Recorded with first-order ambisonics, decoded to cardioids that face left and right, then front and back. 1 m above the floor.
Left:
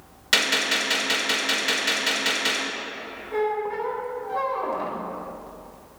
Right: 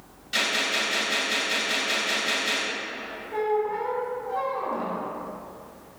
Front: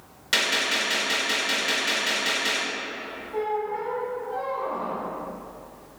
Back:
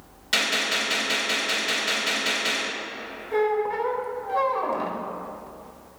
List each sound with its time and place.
0.3 s a gunshot: 80° left, 2.5 m
3.3 s a squeak: 160° left, 1.1 m